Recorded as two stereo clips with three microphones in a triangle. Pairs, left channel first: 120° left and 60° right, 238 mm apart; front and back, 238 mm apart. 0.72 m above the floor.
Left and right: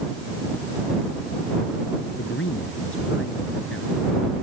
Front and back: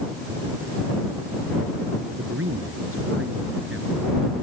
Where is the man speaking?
150° left.